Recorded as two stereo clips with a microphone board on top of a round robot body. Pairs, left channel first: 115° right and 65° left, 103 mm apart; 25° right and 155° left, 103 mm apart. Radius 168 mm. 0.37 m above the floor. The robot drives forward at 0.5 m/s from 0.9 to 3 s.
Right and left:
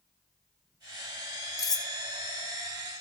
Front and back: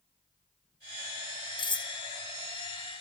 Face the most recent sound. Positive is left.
turn(degrees=-130)